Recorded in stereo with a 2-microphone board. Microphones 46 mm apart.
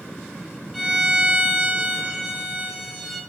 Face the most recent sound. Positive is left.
turn(degrees=-10)  # may be behind; listen again after turning